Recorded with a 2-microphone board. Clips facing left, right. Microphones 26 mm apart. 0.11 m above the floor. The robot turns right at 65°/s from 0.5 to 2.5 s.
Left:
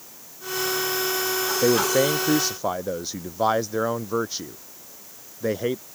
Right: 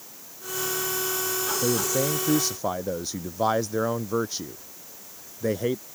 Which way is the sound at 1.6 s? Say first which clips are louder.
Left 7 dB; 110° left.